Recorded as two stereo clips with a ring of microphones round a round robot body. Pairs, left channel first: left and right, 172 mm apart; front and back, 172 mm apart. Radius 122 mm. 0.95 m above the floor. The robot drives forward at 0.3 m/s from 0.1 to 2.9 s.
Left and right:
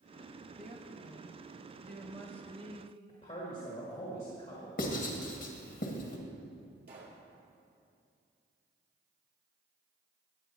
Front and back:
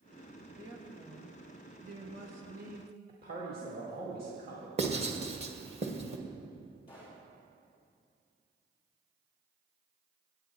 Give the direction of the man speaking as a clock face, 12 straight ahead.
7 o'clock.